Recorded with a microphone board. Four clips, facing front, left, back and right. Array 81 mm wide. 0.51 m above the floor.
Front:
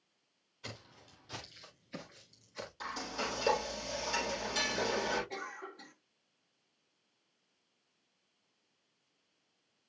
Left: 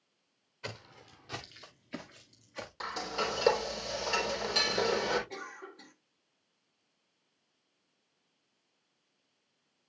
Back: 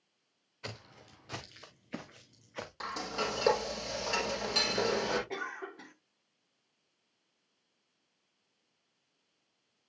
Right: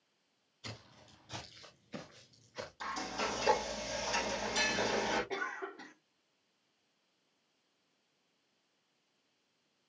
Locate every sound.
0.6 s footsteps: 135° left, 2.5 m; by 2.7 s 170° left, 2.5 m
2.8 s frying: 140° left, 4.5 m
5.3 s a cough: 140° right, 0.9 m